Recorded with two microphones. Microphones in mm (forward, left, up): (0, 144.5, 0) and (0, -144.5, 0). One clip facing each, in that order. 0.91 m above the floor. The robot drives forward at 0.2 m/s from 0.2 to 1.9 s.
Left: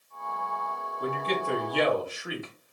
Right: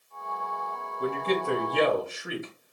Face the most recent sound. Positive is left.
turn(degrees=-25)  # may be behind; listen again after turning